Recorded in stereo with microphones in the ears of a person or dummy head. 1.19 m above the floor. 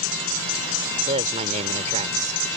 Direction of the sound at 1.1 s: 40° right (ahead or behind).